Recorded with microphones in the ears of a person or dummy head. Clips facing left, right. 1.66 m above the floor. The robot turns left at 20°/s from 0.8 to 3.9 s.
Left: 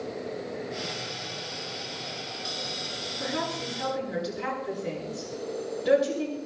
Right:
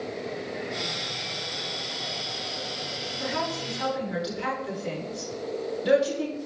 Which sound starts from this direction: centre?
A woman speaking, at 3.2 s.